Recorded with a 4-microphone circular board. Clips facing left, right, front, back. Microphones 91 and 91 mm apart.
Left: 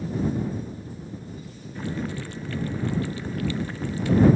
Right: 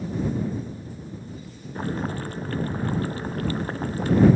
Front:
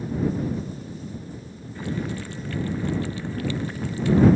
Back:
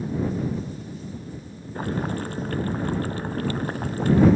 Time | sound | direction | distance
1.8 | boiling | 135° right | ?